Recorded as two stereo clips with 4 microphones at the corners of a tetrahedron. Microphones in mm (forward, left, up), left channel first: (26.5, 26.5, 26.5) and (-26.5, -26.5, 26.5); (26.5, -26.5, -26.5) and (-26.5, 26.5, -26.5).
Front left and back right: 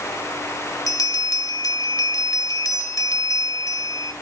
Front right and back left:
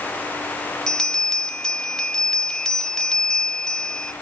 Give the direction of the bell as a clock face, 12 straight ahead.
11 o'clock.